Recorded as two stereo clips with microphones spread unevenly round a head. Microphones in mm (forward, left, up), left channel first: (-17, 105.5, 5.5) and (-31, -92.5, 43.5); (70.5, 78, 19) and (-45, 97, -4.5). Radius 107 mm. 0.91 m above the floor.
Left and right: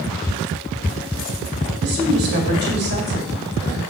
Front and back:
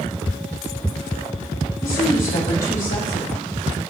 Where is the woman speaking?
50° right, 2 m.